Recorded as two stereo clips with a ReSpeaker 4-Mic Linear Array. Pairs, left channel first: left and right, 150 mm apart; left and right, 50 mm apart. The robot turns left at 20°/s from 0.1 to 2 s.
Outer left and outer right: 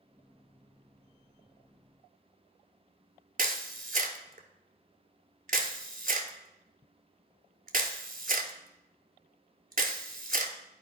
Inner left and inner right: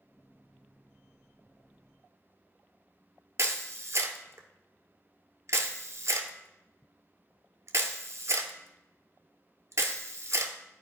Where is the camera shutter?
65° right (ahead or behind), 0.9 m.